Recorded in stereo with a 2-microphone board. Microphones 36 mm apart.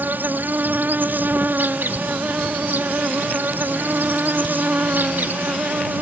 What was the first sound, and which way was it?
An insect, 70° right (ahead or behind).